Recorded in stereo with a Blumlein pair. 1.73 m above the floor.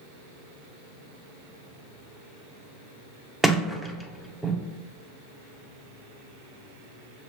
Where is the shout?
No shout in this recording.